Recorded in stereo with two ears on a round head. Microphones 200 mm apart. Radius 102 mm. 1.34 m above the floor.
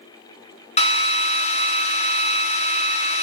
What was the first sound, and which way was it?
A drill, 25° left (ahead or behind).